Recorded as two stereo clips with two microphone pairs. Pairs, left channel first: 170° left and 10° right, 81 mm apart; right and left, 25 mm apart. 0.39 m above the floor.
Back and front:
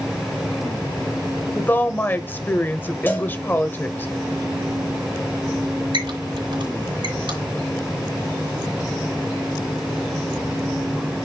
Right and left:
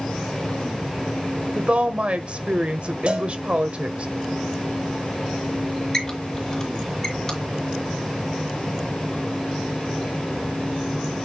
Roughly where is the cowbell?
Behind left.